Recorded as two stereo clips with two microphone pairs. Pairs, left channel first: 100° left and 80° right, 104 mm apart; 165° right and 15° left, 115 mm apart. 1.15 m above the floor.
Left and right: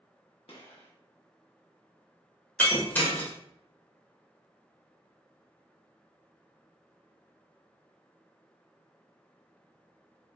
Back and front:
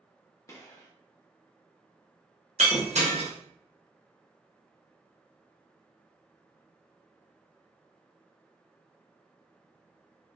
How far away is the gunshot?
About 0.8 m.